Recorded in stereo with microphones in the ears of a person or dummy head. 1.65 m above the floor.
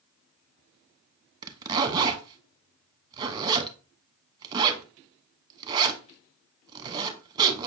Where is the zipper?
25° right (ahead or behind), 1.1 m.